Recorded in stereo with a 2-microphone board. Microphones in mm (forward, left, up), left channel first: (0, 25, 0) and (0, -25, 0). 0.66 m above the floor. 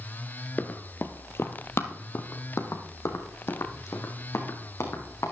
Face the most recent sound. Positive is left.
turn(degrees=75)  # may be behind; listen again after turning